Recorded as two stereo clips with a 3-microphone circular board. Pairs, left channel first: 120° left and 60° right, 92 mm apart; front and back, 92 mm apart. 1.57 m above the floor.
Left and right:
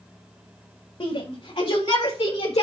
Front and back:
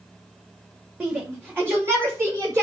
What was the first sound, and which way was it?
A shout, 110° left.